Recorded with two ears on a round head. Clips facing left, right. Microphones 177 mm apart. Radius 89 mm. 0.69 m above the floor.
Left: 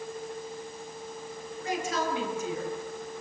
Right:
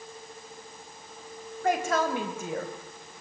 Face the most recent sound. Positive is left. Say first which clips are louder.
# right 5 dB
turn(degrees=-45)  # may be behind; listen again after turning